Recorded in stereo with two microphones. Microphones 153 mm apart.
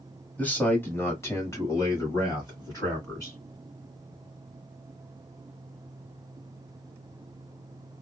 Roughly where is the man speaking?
Centre.